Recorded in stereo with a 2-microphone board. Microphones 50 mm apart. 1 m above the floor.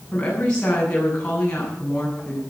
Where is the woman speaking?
20° left (ahead or behind), 8 m.